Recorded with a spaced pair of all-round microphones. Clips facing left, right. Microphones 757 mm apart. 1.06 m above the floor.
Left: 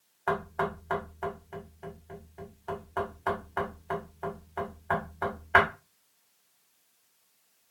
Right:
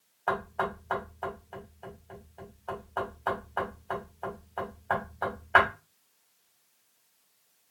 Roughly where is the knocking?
Left.